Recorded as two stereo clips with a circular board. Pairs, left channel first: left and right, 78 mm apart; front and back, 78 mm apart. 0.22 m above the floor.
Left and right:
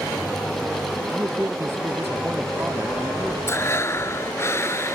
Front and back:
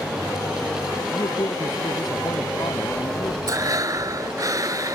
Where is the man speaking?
30° right; by 3.4 s 25° right.